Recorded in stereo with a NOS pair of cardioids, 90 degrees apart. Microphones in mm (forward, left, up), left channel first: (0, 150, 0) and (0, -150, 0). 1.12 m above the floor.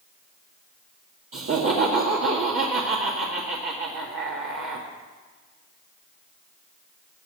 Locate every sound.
1.3 s laughter: 45° right, 2.0 m